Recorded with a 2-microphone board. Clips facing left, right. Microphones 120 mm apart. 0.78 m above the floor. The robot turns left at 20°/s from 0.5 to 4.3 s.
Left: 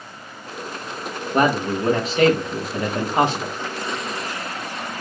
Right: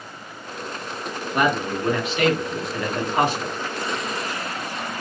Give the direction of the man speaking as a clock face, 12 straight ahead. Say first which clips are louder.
Left 3 dB; 9 o'clock.